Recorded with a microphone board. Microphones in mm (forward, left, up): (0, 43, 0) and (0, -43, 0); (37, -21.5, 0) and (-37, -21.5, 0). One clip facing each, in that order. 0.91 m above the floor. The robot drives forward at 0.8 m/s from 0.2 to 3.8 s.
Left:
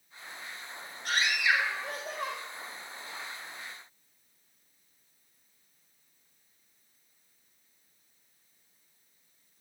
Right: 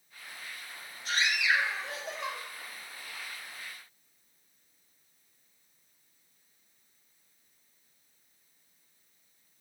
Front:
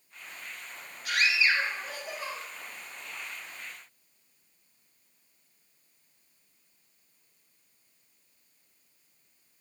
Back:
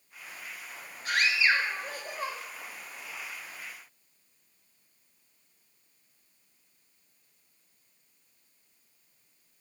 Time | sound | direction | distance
1.1 | a scream | 125° left | 3.5 m